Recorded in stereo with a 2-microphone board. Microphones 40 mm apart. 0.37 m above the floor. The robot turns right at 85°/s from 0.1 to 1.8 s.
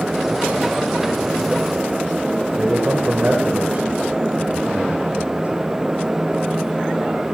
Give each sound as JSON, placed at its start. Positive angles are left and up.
{"t": 2.6, "sound": "a man speaking", "side_deg": -40, "distance_m": 1.2}